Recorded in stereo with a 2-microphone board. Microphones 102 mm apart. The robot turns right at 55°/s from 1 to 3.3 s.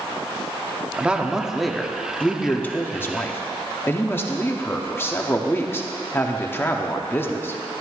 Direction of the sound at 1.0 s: 15° right (ahead or behind).